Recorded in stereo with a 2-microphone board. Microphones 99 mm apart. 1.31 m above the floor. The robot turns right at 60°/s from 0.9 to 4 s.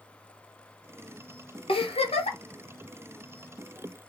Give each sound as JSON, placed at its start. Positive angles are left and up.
{"t": 1.7, "sound": "a giggle", "azimuth_deg": 65, "distance_m": 0.7}